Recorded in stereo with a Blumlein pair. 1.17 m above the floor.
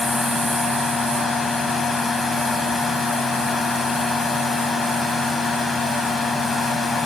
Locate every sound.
0.0 s a fan: 10° left, 0.9 m